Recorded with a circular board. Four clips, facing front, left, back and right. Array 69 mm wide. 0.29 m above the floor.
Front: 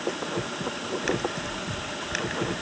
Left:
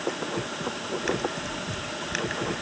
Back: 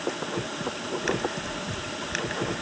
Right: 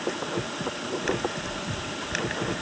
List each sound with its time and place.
Only background noise.